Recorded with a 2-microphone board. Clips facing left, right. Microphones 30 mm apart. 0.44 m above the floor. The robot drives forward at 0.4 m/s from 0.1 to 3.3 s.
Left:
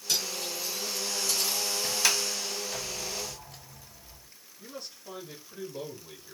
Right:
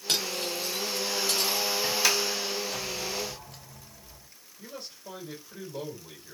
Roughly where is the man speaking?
Right.